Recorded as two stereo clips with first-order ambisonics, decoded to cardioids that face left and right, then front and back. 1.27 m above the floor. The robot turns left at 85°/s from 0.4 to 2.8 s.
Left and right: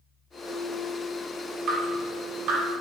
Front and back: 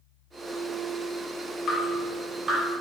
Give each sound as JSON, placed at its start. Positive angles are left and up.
{"t": 1.7, "sound": "dripping", "azimuth_deg": -40, "distance_m": 1.8}